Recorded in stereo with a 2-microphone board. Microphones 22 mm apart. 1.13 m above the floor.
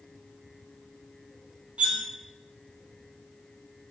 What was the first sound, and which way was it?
Cutlery clinking, 65° right (ahead or behind).